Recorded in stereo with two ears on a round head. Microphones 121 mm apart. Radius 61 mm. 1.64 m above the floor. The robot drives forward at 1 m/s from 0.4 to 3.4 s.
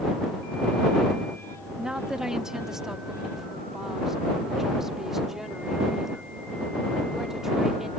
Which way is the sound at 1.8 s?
5° right (ahead or behind).